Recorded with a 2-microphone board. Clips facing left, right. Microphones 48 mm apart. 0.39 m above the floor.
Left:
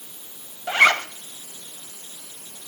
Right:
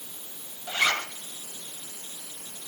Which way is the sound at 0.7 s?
55° left (ahead or behind).